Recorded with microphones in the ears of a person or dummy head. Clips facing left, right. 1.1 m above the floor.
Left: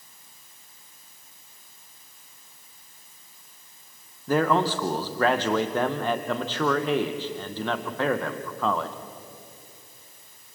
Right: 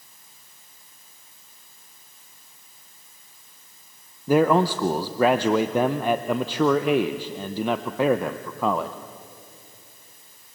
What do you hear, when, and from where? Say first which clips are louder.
4.3 s a man speaking: right 4 dB; 15° right (ahead or behind), 0.5 m